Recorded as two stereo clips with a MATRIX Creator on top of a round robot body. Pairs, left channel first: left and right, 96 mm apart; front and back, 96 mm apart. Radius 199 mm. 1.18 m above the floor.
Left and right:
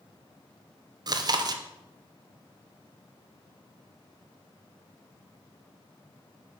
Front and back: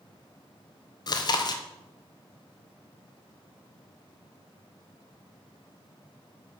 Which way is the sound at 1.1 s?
45° right.